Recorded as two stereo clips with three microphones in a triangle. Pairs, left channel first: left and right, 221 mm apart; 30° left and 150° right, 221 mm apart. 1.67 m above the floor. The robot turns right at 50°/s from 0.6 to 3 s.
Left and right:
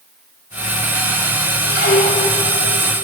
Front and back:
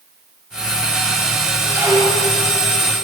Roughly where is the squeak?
Behind left.